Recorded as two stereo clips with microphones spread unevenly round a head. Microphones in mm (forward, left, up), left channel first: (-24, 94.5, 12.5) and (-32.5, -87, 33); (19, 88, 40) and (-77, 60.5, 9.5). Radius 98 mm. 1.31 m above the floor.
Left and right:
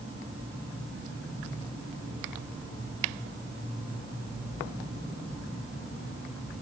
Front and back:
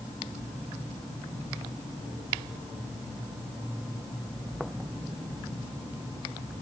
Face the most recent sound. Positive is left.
No sound to turn to.